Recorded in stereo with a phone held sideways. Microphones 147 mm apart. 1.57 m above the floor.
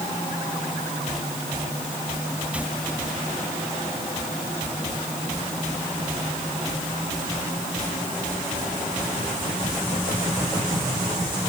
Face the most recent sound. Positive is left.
No sound to turn to.